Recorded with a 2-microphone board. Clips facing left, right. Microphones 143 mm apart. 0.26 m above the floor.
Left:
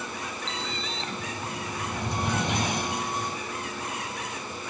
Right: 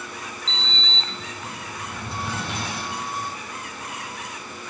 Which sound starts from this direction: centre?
A sliding door, at 0.5 s.